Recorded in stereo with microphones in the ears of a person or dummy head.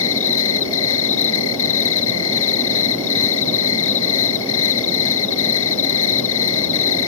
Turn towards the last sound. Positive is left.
turn(degrees=75)  # may be behind; listen again after turning